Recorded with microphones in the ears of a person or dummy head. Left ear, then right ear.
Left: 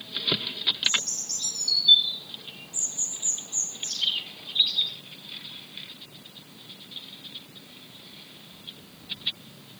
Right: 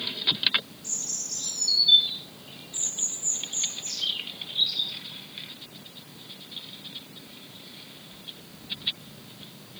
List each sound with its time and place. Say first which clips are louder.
0.8 s a bird: left 7 dB; 25° left (ahead or behind), 1.9 m